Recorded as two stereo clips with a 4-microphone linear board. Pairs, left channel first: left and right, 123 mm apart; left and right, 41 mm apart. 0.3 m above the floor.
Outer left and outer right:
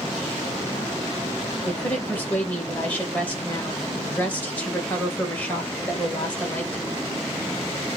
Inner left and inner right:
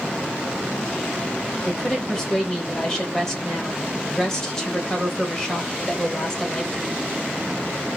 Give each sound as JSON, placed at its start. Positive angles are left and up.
{"t": 1.6, "sound": "a woman speaking", "side_deg": 15, "distance_m": 1.5}